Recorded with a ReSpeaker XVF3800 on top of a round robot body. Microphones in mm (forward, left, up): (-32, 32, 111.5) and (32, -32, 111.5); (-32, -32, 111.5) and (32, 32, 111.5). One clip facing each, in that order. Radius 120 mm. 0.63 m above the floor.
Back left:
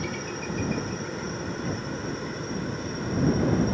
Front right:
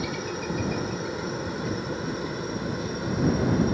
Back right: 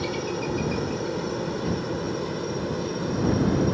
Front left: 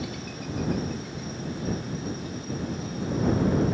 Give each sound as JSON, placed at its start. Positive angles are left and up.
{"t": 0.0, "sound": "a helicopter", "azimuth_deg": -125}